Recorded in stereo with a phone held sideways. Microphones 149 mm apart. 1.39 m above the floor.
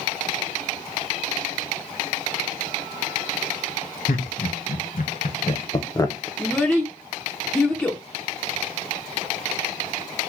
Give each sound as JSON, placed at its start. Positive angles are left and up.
{"t": 4.1, "sound": "laughter", "side_deg": 75, "distance_m": 1.3}
{"t": 6.4, "sound": "a child speaking", "side_deg": 5, "distance_m": 0.6}